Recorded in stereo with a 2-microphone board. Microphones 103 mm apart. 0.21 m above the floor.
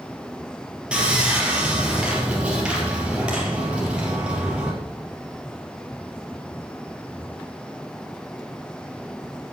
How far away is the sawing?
About 3 m.